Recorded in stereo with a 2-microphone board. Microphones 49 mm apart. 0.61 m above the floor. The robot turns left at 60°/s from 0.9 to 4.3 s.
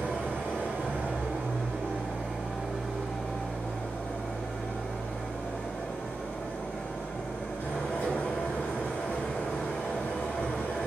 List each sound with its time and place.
0.0 s an engine running: 60° right, 1.6 m; by 10.9 s 95° left, 1.6 m